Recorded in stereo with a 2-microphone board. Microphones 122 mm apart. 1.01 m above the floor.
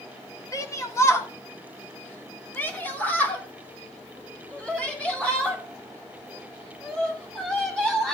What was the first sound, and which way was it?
A shout, 25° left (ahead or behind).